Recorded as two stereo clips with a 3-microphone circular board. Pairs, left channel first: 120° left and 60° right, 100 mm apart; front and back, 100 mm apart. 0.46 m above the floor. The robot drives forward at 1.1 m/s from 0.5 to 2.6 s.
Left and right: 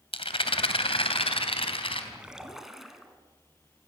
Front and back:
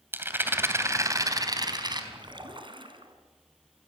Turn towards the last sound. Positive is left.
turn(degrees=-145)